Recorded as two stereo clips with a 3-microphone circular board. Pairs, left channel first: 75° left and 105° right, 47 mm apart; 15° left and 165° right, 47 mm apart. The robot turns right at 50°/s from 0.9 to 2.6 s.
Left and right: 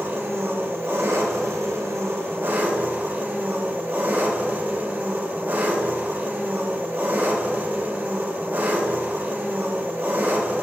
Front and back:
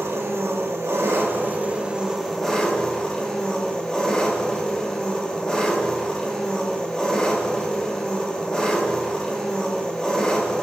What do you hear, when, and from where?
0.0 s an engine running: 145° right, 1.1 m; by 10.6 s 60° right, 1.1 m